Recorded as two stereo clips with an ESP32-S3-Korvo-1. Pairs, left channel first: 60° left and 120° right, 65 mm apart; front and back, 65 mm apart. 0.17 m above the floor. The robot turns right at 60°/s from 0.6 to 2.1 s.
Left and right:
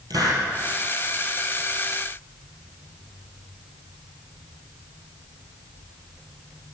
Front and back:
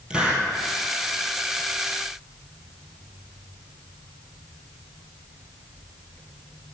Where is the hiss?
105° right, 2.5 m.